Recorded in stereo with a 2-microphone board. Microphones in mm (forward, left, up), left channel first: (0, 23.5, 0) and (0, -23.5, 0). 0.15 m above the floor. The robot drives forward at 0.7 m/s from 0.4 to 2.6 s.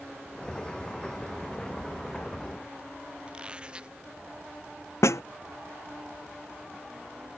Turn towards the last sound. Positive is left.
turn(degrees=80)